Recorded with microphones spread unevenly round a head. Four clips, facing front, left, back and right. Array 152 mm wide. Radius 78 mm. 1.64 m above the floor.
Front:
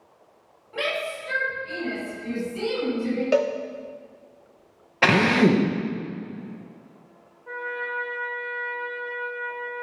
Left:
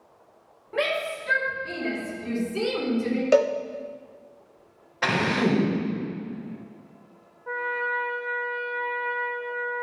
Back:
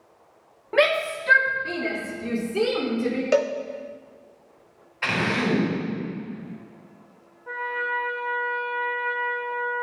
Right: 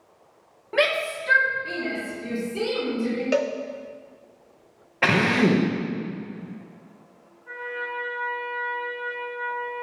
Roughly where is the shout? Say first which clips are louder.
Right 3 dB, back 8 dB; behind right.